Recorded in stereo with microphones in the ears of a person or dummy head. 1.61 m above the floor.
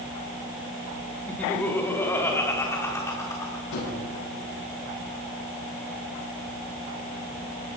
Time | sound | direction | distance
1.3 | laughter | 10° left (ahead or behind) | 3 m
3.7 | a gunshot | 70° left (ahead or behind) | 8 m